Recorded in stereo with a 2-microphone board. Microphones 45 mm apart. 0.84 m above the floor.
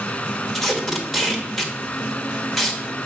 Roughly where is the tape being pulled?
Centre.